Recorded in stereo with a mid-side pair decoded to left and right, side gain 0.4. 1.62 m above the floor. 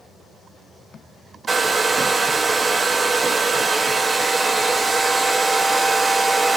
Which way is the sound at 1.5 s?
30° right.